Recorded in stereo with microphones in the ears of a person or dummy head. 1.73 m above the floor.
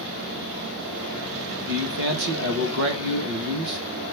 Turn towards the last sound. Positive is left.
turn(degrees=-65)  # may be behind; listen again after turning